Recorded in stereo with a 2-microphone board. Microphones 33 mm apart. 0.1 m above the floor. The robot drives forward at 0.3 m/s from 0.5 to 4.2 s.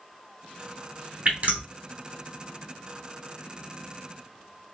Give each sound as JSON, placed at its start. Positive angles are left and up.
{"t": 1.2, "sound": "dripping", "side_deg": -45, "distance_m": 1.0}